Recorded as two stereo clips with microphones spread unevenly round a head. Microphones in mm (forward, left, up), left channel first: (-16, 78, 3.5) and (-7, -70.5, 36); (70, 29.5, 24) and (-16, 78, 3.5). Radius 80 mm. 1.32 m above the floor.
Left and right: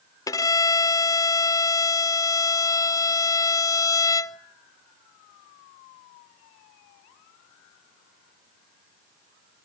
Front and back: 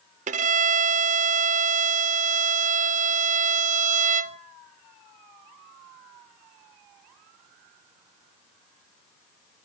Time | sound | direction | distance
0.3 | a violin | 165° left | 0.7 m